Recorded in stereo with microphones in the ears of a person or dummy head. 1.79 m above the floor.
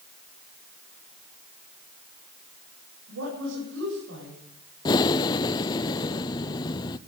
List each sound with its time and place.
3.1 s a woman speaking: 85° right, 9 m
4.8 s breathing: 20° left (ahead or behind), 0.6 m